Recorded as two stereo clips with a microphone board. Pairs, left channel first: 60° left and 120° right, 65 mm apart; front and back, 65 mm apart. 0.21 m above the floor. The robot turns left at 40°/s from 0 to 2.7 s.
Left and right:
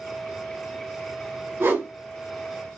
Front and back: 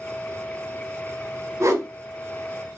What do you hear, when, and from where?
1.6 s a whoosh: 165° right, 0.9 m; by 1.9 s 175° right, 0.9 m